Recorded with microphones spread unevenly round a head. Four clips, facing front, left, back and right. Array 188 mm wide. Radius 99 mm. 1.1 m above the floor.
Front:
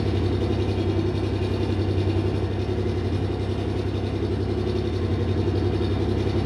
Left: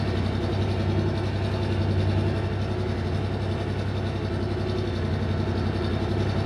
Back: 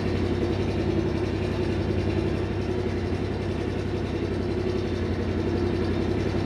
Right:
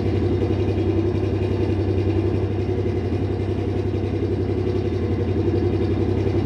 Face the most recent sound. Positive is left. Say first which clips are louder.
# right 6 dB, front 1 dB
turn(degrees=-100)